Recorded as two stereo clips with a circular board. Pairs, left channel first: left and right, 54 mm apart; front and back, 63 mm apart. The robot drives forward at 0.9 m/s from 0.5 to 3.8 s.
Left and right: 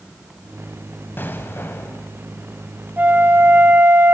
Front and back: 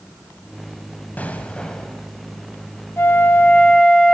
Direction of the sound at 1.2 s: 55° left.